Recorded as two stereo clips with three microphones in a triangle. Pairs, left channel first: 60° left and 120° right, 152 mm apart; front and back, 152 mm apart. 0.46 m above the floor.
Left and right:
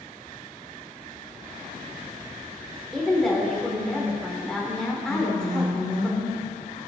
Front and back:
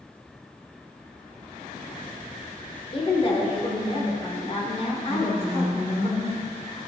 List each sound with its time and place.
2.9 s a woman speaking: 25° right, 1.3 m
5.1 s a woman speaking: 30° left, 3 m